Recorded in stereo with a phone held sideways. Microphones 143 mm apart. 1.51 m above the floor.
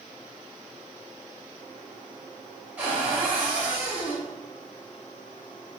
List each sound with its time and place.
2.8 s a cupboard door: 15° right (ahead or behind), 1.2 m